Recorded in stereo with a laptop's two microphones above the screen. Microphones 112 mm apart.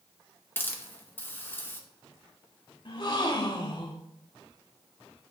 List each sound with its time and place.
0.6 s a hiss: 20° left (ahead or behind), 0.7 m
2.9 s a gasp: 45° left (ahead or behind), 1.3 m